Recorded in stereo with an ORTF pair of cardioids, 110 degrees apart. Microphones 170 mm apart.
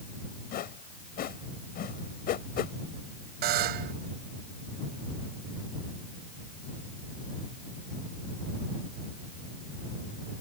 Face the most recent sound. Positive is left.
turn(degrees=-70)